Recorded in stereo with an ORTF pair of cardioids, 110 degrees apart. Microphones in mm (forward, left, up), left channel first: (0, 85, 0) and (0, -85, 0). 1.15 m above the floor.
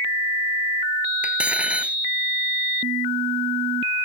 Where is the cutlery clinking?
5° right.